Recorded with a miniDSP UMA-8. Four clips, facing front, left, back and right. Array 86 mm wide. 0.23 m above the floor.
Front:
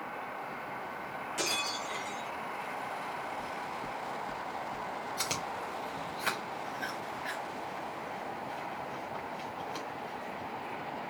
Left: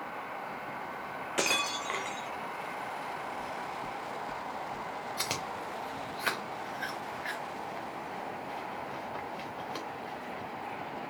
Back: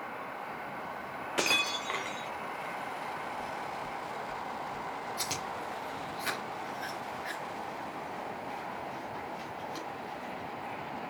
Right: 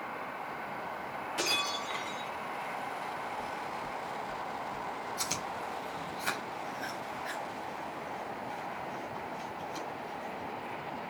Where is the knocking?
45° left, 2.5 m.